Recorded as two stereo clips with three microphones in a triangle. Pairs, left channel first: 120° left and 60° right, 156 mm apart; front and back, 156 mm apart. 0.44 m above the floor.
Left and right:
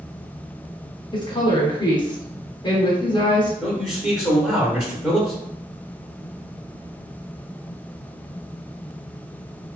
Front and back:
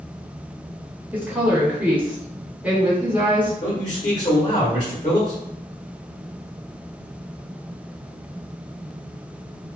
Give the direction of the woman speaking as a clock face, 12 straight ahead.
8 o'clock.